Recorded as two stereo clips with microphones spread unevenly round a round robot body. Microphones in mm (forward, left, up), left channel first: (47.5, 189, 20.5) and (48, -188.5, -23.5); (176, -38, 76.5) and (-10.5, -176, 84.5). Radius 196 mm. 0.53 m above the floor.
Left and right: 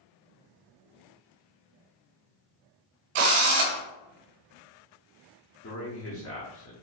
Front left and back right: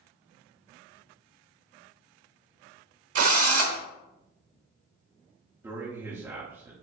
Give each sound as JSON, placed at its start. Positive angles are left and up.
{"t": 3.1, "sound": "a drill", "azimuth_deg": -120, "distance_m": 0.8}
{"t": 5.6, "sound": "a man speaking", "azimuth_deg": 140, "distance_m": 0.8}